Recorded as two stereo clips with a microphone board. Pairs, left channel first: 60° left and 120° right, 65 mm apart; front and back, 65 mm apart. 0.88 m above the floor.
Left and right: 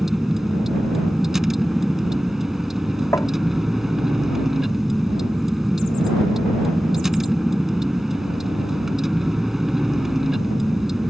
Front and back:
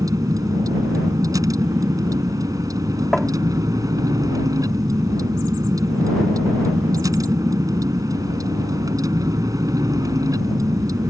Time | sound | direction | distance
0.0 | a vehicle | 155° left | ?
3.1 | tapping | 85° left | ?